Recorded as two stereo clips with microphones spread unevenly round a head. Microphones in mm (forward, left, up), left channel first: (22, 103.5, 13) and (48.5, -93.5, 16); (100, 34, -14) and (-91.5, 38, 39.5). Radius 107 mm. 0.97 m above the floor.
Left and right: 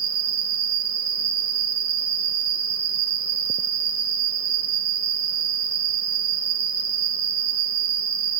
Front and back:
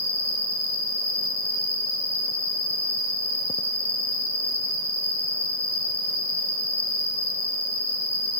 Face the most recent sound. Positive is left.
turn(degrees=-35)